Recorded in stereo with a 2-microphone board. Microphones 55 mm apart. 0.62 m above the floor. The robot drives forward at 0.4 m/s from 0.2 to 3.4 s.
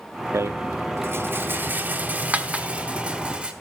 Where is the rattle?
55° right (ahead or behind), 0.6 m; by 3.5 s 20° right (ahead or behind), 1.4 m.